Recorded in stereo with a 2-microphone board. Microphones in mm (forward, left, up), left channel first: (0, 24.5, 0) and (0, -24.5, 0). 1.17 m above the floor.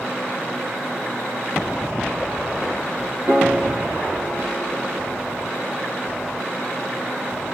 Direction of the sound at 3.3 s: 40° right (ahead or behind).